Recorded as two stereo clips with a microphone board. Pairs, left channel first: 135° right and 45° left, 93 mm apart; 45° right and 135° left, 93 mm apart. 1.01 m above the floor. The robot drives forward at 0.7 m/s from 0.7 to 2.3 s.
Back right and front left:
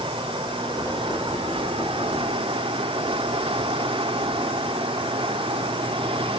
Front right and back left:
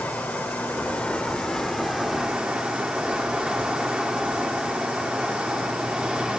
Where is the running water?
30° left, 2 m; by 6.4 s 55° left, 1.3 m.